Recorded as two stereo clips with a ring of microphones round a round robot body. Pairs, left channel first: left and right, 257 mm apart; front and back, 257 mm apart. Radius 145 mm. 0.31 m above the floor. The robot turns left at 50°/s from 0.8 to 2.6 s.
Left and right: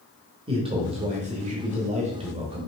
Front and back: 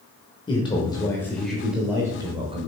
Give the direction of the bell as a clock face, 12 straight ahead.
I don't hear a bell.